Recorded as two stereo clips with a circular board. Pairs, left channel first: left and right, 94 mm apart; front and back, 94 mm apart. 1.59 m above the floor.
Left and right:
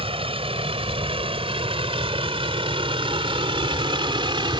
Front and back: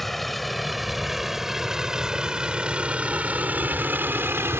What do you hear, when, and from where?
0.0 s a vehicle: 90° right; by 4.6 s 115° right